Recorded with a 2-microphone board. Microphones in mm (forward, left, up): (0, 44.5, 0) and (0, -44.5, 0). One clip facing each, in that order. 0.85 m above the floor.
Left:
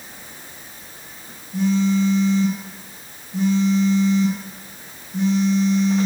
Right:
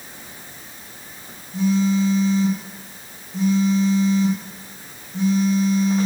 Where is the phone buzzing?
80° left, 2.5 m.